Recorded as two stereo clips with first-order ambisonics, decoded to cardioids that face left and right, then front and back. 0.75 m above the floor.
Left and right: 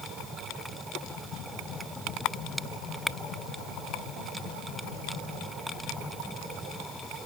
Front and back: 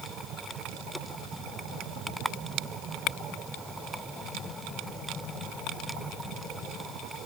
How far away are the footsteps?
No footsteps in this recording.